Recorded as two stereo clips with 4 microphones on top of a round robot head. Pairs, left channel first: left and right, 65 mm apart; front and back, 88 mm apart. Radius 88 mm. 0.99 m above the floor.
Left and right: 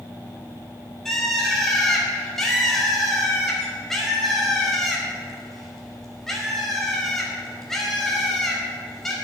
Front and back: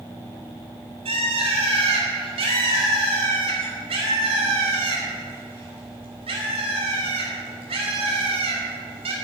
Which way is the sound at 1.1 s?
175° left.